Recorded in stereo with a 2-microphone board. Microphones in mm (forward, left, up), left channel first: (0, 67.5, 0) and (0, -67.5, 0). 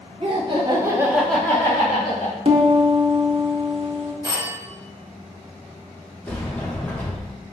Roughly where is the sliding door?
Centre.